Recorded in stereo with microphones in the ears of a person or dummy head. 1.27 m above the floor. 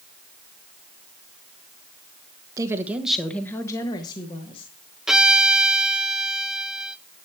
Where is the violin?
5° right (ahead or behind), 0.7 m.